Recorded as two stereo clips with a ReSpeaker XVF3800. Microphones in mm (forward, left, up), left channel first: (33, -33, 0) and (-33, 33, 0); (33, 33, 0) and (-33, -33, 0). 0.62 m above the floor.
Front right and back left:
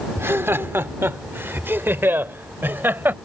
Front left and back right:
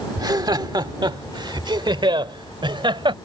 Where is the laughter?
165° right; by 3.1 s 160° right.